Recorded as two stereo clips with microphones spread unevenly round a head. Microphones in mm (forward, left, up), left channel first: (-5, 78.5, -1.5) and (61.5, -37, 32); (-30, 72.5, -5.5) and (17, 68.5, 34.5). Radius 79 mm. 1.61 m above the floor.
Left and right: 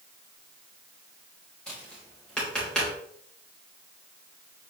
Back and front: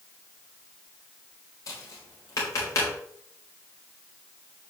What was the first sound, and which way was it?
Tapping, 155° right.